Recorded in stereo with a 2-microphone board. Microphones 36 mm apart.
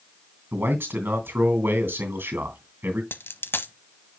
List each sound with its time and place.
0.5 s a man speaking: 65° right (ahead or behind), 2.5 m
3.1 s a dropped coin: 75° left (ahead or behind), 0.7 m